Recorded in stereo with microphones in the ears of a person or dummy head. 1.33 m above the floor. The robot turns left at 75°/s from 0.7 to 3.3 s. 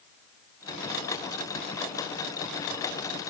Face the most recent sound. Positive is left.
No sound to turn to.